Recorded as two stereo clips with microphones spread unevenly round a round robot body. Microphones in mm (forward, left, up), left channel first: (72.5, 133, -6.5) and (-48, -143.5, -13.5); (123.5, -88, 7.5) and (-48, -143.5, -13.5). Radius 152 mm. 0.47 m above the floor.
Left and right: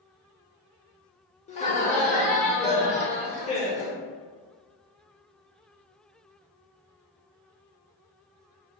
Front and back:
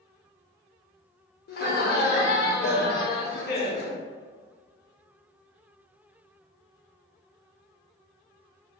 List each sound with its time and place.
1.5 s laughter: straight ahead, 1.1 m